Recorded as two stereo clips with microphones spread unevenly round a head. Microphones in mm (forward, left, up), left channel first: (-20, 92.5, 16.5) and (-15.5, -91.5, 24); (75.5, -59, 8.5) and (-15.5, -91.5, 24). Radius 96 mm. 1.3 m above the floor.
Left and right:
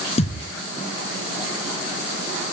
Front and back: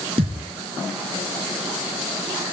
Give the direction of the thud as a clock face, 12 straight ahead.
7 o'clock.